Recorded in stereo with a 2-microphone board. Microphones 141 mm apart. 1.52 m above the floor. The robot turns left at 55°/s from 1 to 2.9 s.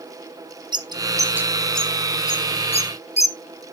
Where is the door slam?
No door slam in this recording.